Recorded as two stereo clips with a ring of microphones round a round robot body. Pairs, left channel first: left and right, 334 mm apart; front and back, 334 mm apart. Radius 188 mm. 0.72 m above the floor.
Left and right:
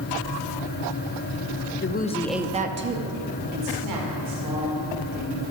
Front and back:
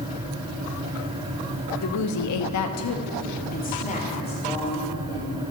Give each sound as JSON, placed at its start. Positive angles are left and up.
{"t": 1.8, "sound": "a woman speaking", "azimuth_deg": 45, "distance_m": 1.2}